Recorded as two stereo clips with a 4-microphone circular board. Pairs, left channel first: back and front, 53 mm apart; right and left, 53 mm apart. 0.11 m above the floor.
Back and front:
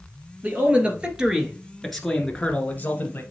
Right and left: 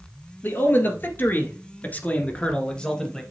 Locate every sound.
0.4 s a man speaking: 50° right, 1.9 m; by 3.2 s 165° right, 1.5 m